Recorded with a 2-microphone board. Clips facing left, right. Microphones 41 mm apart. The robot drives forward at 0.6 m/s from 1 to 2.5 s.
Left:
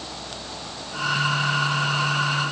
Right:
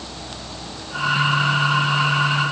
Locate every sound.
Only background noise.